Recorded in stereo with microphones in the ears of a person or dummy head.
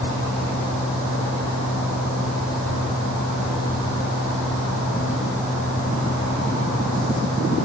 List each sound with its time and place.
0.0 s a fan: 55° left (ahead or behind), 2.5 m